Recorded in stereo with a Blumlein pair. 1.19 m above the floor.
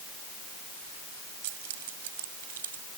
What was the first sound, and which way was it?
Keys jangling, 50° right.